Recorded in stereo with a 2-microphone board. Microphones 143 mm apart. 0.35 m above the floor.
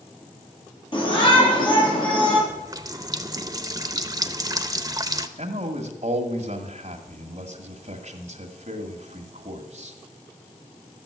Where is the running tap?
25° right (ahead or behind), 0.7 m.